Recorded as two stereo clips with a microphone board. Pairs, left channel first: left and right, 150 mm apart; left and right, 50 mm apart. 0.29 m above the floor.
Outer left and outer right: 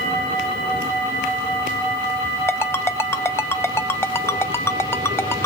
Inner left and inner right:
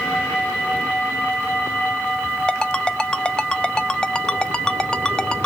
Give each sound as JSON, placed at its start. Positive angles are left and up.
{"t": 2.5, "sound": "a ringtone", "side_deg": 15, "distance_m": 0.8}